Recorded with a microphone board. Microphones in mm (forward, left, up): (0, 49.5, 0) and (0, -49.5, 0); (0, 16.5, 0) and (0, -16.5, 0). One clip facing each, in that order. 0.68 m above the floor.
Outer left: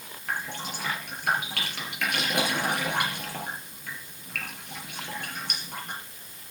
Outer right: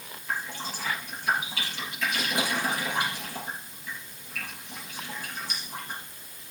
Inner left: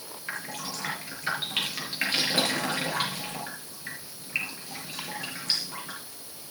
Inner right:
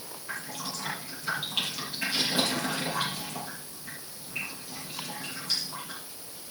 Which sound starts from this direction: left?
Dripping, at 0.3 s.